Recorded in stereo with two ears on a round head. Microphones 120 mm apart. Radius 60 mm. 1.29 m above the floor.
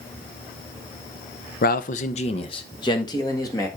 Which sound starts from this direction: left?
A man speaking, at 1.6 s.